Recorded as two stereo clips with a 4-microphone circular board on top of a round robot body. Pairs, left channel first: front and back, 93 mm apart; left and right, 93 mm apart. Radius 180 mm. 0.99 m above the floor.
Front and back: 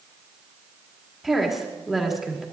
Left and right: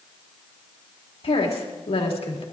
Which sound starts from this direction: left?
A woman speaking, at 1.2 s.